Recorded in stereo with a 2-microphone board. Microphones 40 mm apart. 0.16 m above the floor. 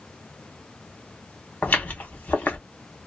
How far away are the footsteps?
About 1.2 m.